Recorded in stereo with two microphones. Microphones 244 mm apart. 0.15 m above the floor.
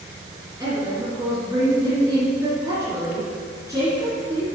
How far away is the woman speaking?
About 1.9 m.